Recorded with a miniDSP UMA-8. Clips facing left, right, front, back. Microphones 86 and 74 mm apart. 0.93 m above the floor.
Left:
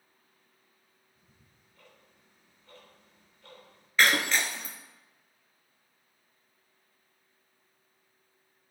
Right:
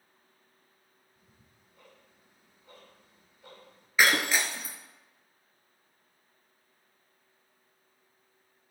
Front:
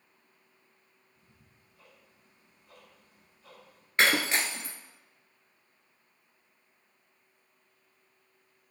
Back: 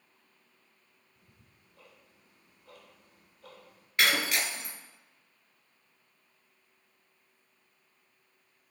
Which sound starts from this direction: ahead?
Breaking glass, at 4.0 s.